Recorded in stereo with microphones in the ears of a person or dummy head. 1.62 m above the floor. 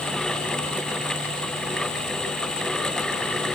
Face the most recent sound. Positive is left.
No sound to turn to.